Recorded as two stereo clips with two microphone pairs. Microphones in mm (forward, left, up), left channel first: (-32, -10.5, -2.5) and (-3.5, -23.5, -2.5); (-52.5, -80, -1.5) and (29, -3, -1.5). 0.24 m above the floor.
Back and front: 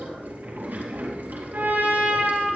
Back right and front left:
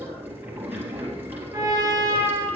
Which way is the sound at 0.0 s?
30° right.